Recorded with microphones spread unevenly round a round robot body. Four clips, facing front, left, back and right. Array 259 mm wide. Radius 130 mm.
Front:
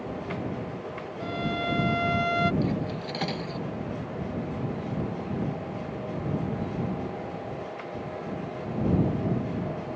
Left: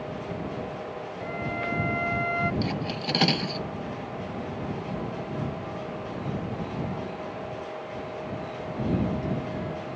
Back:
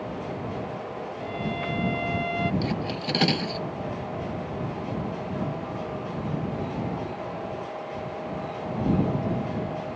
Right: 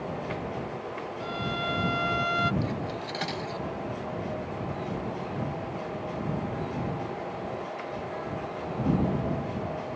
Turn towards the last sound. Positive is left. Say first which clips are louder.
# left 2 dB, even
turn(degrees=145)